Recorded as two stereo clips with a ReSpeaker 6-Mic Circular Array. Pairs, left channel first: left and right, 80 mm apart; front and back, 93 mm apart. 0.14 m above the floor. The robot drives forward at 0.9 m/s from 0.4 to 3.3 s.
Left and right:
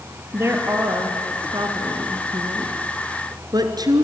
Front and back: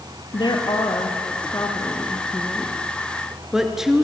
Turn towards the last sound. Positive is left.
turn(degrees=-95)